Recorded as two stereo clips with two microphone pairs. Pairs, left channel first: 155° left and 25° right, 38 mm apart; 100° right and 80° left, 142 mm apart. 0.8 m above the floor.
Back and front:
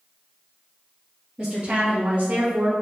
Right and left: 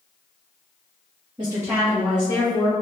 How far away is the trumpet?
No trumpet in this recording.